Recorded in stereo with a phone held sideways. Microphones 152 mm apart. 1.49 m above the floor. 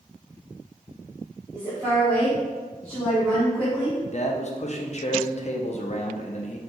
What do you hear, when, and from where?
1.5 s a woman speaking: 20° right (ahead or behind), 1.1 m
4.1 s a man speaking: 50° left (ahead or behind), 0.5 m